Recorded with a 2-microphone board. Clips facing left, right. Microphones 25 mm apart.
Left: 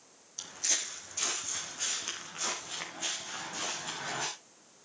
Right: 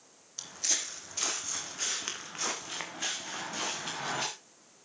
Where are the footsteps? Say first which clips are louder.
Right 1 dB; 10° right (ahead or behind), 3 m; by 4.3 s 35° right (ahead or behind), 6 m.